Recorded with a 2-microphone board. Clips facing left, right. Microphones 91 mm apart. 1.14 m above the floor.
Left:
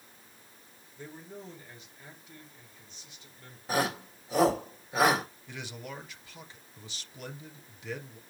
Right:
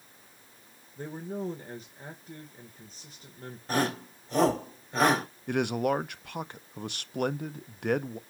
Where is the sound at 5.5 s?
55° right (ahead or behind), 0.6 m.